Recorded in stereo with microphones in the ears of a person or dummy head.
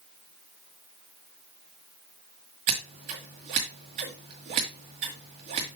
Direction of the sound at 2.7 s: 30° right (ahead or behind).